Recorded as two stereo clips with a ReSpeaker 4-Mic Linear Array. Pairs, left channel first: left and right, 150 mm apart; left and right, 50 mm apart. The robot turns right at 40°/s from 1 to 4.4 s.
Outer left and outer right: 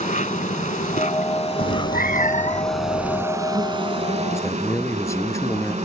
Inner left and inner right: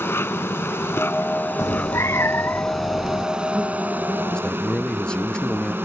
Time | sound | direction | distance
0.0 | an insect | 110° left | ?
1.6 | a cat meowing | 90° left | ?
4.3 | a man speaking | 15° left (ahead or behind) | ?